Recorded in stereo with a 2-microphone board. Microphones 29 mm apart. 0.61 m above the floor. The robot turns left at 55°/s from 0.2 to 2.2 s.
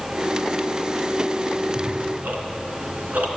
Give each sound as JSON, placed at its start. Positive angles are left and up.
{"t": 1.6, "sound": "ticking", "side_deg": -35, "distance_m": 2.0}